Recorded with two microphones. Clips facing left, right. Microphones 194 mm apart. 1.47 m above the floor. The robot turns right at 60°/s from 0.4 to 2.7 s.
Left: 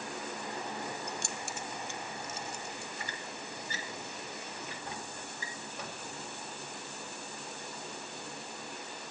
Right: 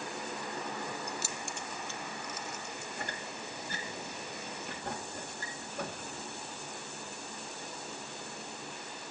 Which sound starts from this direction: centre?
Keys jangling, at 1.1 s.